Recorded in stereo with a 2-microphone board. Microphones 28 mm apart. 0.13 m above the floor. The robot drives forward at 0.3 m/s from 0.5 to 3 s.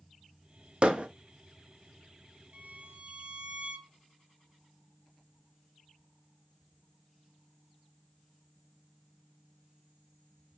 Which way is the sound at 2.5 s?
55° right (ahead or behind).